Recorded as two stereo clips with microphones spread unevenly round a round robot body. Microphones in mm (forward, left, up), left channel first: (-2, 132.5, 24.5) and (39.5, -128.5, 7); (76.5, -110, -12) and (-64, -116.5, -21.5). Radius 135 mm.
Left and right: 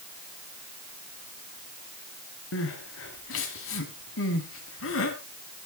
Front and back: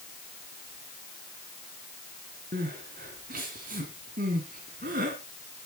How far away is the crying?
About 3 m.